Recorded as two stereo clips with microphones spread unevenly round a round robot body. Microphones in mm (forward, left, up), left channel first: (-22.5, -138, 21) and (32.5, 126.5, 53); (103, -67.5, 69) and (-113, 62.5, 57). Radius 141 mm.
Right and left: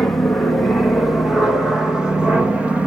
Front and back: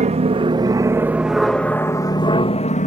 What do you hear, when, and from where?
0.0 s an aircraft: straight behind; by 2.9 s 15° right